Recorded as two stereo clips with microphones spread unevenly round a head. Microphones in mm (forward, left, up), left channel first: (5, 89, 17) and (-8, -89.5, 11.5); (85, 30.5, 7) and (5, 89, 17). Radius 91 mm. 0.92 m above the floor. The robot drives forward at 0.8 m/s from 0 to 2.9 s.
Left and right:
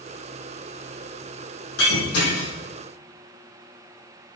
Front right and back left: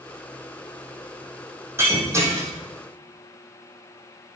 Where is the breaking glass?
80° left, 6 m; by 2.5 s 85° left, 6 m.